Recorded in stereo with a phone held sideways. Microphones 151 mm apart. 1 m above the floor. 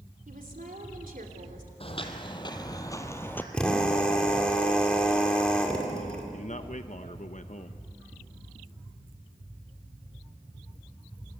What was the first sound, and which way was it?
A woman speaking, 70° right (ahead or behind).